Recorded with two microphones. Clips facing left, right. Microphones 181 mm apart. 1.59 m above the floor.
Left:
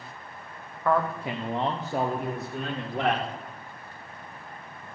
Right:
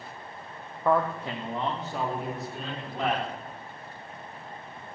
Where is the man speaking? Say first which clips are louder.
Even; 15° right (ahead or behind), 0.7 m; by 3.3 s 65° left (ahead or behind), 2 m.